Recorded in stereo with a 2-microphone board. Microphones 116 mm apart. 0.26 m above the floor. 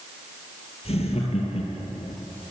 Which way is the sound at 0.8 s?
60° left (ahead or behind).